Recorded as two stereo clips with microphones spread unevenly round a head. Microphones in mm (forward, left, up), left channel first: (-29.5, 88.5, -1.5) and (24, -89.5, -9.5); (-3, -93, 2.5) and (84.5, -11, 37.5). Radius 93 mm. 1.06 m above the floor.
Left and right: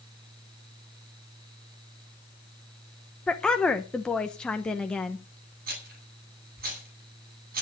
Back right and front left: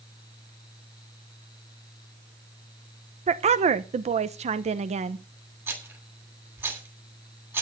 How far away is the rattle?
About 10 m.